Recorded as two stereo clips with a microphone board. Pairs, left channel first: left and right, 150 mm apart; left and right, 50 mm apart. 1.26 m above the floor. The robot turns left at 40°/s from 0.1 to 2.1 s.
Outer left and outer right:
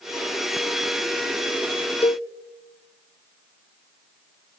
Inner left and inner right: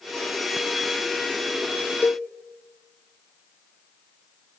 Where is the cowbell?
40° left (ahead or behind), 0.7 m.